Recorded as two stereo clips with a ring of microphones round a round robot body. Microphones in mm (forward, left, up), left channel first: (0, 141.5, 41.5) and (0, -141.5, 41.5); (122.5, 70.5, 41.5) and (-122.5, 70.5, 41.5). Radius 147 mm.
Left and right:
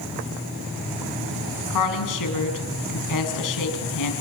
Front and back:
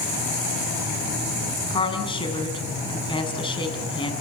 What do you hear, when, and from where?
1.7 s a woman speaking: 70° left, 6 m